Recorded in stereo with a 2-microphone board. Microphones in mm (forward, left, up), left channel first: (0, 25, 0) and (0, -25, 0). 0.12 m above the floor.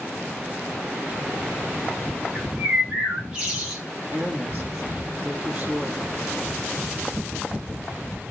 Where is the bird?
20° right (ahead or behind), 3.5 m.